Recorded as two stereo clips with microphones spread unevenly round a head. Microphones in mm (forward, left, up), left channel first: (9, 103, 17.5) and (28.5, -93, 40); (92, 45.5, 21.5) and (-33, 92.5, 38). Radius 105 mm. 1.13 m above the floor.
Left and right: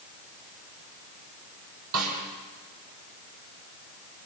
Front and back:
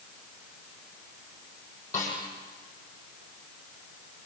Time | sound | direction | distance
1.9 | a snare drum | 105° right | 7 m